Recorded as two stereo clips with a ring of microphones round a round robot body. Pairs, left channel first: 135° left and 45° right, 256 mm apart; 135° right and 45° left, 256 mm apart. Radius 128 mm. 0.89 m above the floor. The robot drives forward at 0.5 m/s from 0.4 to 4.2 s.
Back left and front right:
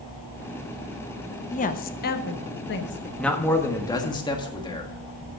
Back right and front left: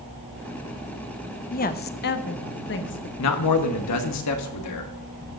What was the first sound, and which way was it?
A woman speaking, 175° right.